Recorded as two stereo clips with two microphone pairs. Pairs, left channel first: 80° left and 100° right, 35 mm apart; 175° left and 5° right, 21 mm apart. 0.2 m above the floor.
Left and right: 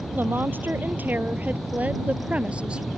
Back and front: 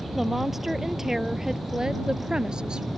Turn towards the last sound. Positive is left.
turn(degrees=-40)